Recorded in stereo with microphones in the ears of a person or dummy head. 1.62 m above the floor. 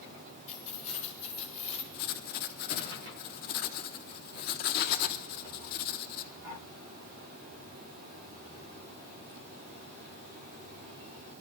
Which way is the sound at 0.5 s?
35° left (ahead or behind).